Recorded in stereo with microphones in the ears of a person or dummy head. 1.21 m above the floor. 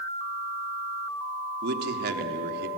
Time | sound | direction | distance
1.6 | a man speaking | 60° right (ahead or behind) | 2.5 m